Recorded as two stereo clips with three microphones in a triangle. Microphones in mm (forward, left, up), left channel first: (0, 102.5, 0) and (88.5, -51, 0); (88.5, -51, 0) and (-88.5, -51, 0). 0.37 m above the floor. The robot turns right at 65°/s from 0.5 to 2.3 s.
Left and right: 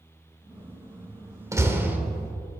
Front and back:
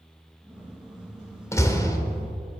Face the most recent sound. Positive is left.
turn(degrees=20)